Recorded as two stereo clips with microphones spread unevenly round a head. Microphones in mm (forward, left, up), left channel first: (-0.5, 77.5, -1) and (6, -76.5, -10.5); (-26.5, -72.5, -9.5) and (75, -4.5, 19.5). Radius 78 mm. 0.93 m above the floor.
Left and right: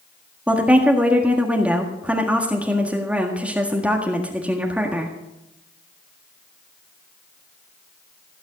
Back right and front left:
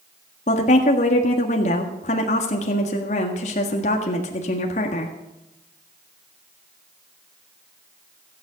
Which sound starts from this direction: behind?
A woman speaking, at 0.5 s.